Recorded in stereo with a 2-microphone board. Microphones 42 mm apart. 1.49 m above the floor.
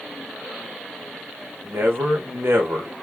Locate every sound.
1.6 s a man speaking: 65° right (ahead or behind), 1.2 m